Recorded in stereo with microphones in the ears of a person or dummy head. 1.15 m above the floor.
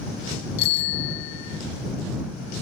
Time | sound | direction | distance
0.6 | a bicycle bell | 65° left (ahead or behind) | ?